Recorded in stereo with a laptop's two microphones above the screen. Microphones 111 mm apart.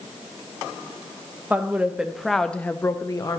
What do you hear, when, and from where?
1.5 s a woman speaking: 15° right (ahead or behind), 1.5 m; by 3.4 s 35° left (ahead or behind), 0.9 m